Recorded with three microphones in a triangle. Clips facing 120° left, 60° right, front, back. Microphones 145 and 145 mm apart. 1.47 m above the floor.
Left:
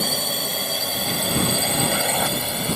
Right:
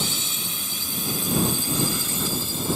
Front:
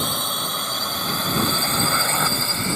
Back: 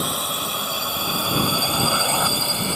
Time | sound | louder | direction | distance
0.0 | a drone | left 6 dB, back 1 dB | 90° left | ?